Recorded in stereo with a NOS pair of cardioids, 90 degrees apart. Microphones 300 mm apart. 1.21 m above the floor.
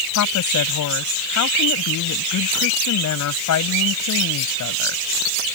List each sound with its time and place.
0.1 s a woman speaking: 65° left